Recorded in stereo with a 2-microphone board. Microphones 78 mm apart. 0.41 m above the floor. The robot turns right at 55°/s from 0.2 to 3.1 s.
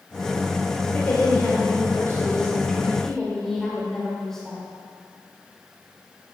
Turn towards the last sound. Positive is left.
turn(degrees=170)